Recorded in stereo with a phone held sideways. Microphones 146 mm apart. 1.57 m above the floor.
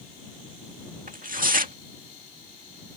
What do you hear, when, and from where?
1.1 s tearing paper: 70° right (ahead or behind)